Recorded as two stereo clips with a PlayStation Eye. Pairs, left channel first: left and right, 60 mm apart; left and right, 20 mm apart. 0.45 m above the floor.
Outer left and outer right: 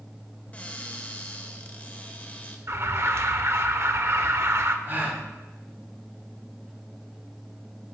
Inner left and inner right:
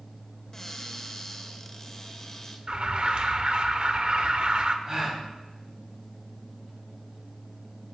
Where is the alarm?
50° right (ahead or behind), 0.6 m.